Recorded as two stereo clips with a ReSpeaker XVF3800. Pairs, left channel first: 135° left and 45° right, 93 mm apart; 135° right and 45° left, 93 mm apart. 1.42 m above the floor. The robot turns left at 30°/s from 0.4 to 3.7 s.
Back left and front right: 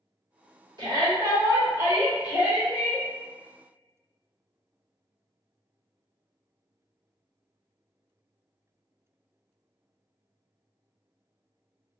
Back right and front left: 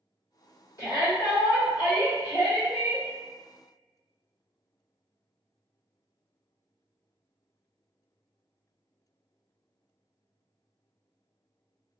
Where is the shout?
80° right, 1.6 m; by 3.1 s 150° right, 1.6 m.